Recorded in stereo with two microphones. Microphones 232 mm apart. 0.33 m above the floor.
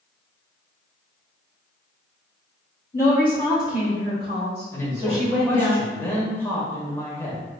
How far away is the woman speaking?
About 1.4 m.